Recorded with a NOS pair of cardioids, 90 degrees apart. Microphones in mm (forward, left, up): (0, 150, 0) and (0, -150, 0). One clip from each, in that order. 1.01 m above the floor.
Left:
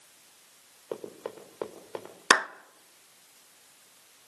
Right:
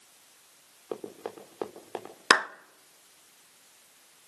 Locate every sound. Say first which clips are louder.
0.9 s running footsteps: even; 15° right, 4.5 m
2.3 s a clap: even; 5° right, 0.6 m